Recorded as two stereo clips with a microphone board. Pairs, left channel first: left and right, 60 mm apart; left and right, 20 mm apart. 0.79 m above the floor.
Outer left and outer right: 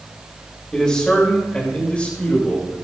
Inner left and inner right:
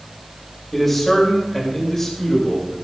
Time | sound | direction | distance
0.7 | a man speaking | 10° left (ahead or behind) | 3.5 m